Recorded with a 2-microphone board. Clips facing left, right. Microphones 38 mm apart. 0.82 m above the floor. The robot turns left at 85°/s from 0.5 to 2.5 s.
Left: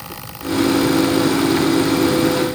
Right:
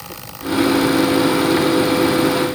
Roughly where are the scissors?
I don't hear scissors.